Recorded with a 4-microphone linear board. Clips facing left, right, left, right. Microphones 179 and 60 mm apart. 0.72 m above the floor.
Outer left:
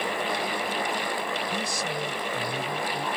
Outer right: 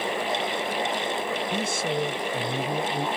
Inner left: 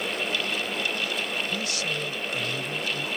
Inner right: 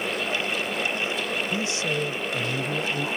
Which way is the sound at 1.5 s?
25° right (ahead or behind).